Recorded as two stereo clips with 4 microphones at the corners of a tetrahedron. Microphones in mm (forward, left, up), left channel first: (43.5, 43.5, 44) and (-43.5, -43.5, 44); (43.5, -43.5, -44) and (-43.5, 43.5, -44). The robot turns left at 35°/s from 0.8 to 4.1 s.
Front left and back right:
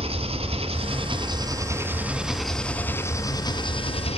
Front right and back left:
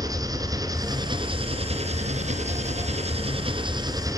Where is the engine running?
170° right, 2 m; by 4.2 s 75° left, 2 m.